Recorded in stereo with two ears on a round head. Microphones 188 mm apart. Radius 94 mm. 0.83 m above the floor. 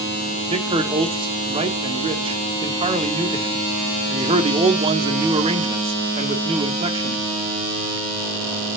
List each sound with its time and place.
0.5 s a man speaking: 25° right (ahead or behind), 1.5 m